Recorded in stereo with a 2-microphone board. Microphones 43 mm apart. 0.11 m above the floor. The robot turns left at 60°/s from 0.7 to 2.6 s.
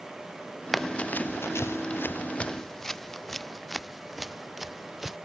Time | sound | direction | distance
0.7 | running footsteps | 5° left (ahead or behind) | ?